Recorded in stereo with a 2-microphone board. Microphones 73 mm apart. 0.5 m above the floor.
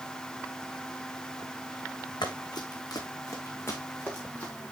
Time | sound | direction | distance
2.2 | running footsteps | 75° left (ahead or behind) | 2.5 m